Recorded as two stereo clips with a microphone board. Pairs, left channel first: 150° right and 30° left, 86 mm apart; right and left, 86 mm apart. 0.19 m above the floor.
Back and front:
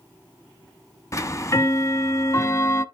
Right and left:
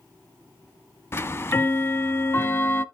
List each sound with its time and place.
1.1 s ticking: 130° right, 0.5 m